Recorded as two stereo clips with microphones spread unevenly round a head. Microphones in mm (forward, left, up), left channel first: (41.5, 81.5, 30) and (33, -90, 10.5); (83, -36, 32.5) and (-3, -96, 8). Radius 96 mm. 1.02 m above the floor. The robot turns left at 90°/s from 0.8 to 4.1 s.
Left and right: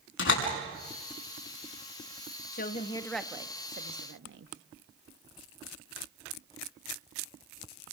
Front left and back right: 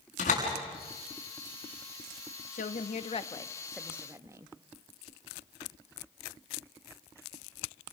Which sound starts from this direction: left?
A door slam, at 0.2 s.